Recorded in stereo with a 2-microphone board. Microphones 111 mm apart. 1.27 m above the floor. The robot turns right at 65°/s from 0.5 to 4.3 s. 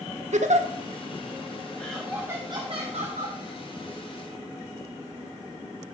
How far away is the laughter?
About 0.9 m.